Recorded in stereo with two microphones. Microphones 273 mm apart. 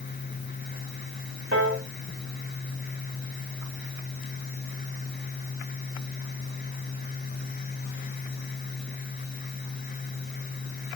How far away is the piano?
About 1.5 m.